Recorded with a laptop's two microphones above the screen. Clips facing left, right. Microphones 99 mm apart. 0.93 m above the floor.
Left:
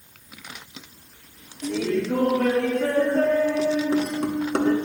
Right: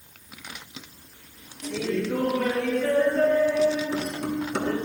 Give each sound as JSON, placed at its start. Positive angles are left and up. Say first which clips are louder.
{"t": 1.6, "sound": "laughter", "louder": "left 3 dB", "side_deg": 55, "distance_m": 1.6}